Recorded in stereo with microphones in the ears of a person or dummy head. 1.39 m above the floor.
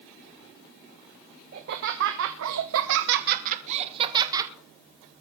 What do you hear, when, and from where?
1.5 s laughter: 55° right (ahead or behind), 1.3 m; by 4.5 s 20° right (ahead or behind), 1.5 m